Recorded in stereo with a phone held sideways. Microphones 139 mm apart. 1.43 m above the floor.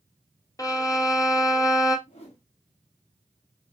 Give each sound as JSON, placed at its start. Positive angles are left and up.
{"t": 0.6, "sound": "a violin", "side_deg": 25, "distance_m": 0.6}
{"t": 2.1, "sound": "a whoosh", "side_deg": 45, "distance_m": 1.2}